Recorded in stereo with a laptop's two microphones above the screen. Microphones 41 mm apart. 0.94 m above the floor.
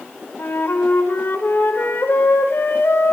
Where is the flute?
60° left (ahead or behind), 0.7 m.